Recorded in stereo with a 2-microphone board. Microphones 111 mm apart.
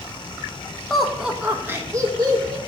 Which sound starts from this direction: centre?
Laughter, at 0.9 s.